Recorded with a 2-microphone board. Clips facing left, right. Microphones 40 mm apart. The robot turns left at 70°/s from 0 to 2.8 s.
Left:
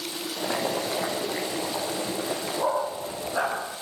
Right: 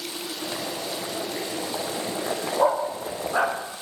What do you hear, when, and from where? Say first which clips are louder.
0.4 s boiling: left 6 dB; 80° left, 8 m; by 3.6 s 90° right, 8 m
2.6 s a dog barking: right 5 dB; 55° right (ahead or behind), 7 m; by 3.6 s 40° right (ahead or behind), 7 m